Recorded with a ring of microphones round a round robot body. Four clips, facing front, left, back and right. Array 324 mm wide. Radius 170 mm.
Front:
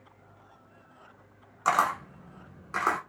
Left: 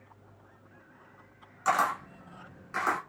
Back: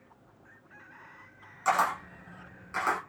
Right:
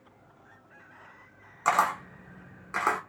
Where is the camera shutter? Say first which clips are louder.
Right 2 dB, front 1 dB; 45° right, 1.3 m.